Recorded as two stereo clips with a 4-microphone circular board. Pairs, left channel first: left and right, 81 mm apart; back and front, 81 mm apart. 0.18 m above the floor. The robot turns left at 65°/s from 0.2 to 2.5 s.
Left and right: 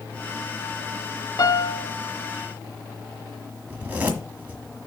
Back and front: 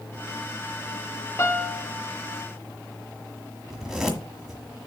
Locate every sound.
1.4 s a piano: 125° left, 0.5 m; by 1.9 s 95° left, 0.5 m
3.7 s a zipper: 80° right, 1.5 m